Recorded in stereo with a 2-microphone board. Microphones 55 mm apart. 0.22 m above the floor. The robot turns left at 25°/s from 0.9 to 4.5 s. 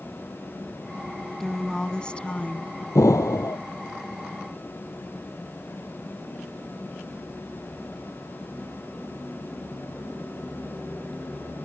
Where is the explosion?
80° left.